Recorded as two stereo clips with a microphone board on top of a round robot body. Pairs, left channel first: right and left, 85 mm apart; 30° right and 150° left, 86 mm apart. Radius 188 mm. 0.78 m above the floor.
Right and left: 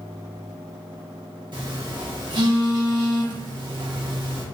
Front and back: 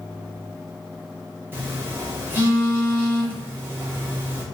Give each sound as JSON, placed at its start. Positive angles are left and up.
{"t": 1.5, "sound": "a phone buzzing", "azimuth_deg": 90, "distance_m": 0.9}